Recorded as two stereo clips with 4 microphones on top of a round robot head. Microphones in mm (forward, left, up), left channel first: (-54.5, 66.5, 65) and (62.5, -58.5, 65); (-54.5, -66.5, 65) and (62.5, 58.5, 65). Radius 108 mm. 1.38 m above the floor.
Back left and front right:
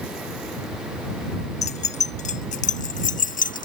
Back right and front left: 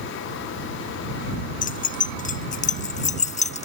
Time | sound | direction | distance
1.6 | keys jangling | 175° right | ?